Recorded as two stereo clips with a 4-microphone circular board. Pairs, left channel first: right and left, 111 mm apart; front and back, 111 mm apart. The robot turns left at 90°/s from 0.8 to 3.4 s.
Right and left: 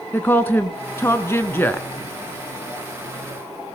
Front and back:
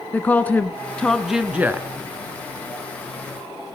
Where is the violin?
I don't hear a violin.